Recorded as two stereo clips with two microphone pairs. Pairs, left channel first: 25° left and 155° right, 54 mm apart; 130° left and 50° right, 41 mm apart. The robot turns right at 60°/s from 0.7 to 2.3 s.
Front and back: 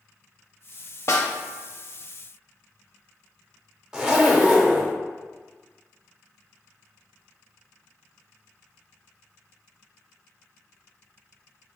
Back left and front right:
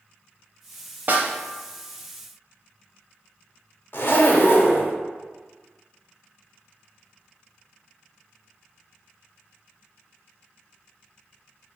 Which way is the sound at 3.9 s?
120° left.